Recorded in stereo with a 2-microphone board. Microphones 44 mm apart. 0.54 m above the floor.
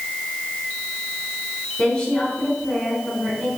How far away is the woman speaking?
About 4 m.